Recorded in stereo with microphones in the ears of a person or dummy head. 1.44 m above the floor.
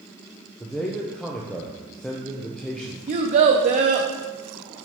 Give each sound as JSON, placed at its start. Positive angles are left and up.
{"t": 0.6, "sound": "a man speaking", "side_deg": 5, "distance_m": 0.6}
{"t": 3.1, "sound": "a child speaking", "side_deg": -35, "distance_m": 0.5}